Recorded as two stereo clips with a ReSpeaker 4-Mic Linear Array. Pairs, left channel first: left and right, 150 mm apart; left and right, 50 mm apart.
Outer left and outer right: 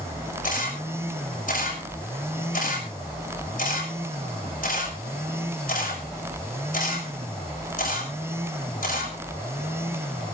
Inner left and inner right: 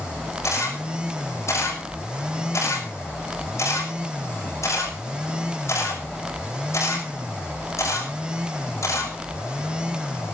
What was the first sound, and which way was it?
A camera shutter, 65° left (ahead or behind).